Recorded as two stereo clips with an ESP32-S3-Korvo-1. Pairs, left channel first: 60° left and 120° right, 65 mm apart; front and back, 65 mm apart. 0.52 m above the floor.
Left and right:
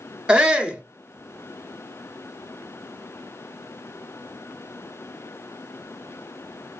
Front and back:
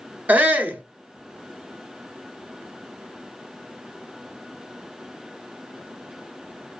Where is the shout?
175° right, 0.9 m.